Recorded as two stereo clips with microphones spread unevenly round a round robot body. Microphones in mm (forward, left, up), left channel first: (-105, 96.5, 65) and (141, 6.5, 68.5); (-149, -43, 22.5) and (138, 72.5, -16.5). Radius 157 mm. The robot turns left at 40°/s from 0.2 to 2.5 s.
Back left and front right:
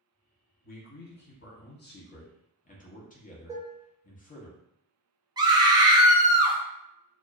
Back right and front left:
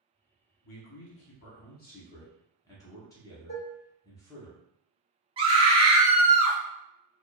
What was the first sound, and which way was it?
A man speaking, 165° right.